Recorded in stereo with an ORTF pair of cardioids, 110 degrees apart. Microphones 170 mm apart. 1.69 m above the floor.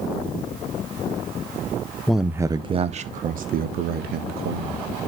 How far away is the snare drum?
No snare drum in this recording.